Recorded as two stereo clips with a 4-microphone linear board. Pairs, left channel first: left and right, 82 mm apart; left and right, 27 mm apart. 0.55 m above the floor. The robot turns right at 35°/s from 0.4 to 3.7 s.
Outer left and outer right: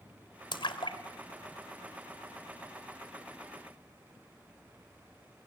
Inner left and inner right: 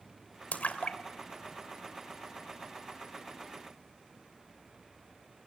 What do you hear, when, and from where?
0.5 s a splash: 65° left (ahead or behind), 2.5 m; by 2.6 s 20° left (ahead or behind), 2.5 m